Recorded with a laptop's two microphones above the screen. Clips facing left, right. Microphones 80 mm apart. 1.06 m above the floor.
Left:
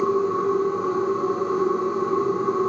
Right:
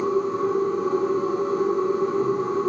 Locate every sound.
0.0 s a machine running: 55° left (ahead or behind), 1.1 m